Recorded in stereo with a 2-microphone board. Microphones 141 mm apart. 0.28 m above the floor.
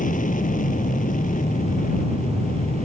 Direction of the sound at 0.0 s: 70° left (ahead or behind).